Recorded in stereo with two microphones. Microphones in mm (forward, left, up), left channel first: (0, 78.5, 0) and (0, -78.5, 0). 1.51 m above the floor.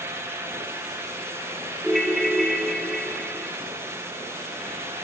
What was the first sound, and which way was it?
A ringtone, centre (ahead or behind).